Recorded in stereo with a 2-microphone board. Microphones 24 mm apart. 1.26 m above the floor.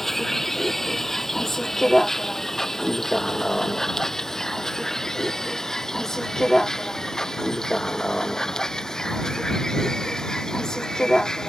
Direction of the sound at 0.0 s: 10° left (ahead or behind).